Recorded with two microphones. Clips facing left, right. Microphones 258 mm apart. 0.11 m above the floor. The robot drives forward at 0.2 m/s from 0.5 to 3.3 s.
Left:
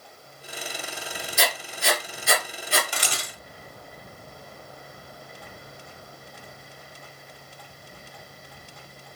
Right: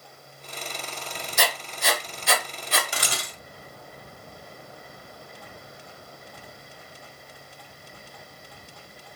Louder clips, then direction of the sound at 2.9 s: Even; 25° right (ahead or behind).